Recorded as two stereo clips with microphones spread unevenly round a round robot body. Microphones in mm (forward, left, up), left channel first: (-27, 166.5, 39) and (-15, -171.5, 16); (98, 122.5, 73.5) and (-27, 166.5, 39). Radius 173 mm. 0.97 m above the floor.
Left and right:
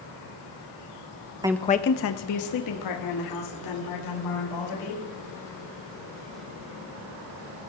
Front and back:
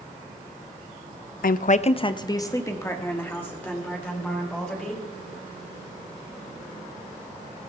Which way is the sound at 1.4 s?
15° right.